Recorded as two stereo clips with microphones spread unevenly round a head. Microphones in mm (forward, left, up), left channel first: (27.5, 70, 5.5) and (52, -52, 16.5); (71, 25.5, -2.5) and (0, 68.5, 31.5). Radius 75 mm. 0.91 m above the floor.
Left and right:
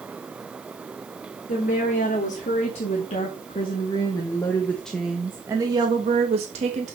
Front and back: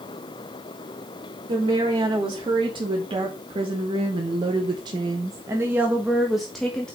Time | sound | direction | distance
1.5 | a woman speaking | 115° left | 2.5 m